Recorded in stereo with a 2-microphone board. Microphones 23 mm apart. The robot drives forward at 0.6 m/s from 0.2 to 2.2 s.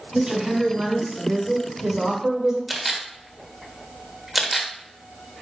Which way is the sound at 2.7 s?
Centre (ahead or behind).